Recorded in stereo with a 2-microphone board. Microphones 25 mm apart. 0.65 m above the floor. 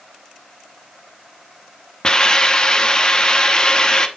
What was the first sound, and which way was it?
A hiss, 30° left (ahead or behind).